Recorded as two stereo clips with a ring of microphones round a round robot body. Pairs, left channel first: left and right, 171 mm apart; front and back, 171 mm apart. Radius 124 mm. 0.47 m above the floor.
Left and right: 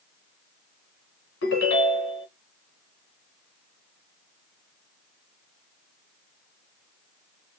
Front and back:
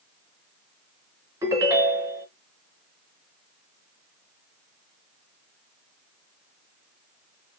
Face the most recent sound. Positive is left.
turn(degrees=105)